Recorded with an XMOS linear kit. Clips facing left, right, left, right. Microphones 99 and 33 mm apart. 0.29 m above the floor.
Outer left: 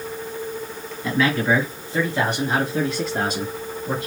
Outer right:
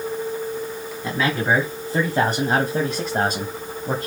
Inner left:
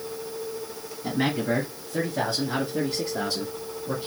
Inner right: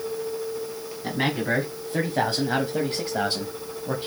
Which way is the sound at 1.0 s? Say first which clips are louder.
Outer left 2 dB, even; 30° right (ahead or behind).